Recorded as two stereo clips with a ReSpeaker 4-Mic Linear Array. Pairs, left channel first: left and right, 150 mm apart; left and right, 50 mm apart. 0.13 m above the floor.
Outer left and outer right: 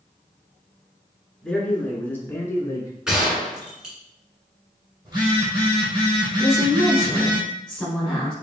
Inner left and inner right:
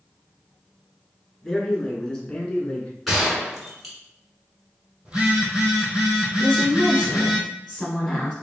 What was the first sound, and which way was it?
A man speaking, 5° left (ahead or behind).